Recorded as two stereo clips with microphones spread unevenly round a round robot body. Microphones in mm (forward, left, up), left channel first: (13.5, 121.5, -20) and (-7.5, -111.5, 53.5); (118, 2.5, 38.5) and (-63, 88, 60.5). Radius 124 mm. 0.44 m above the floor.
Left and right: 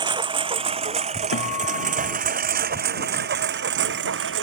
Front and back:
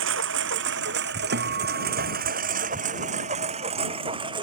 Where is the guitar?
120° left.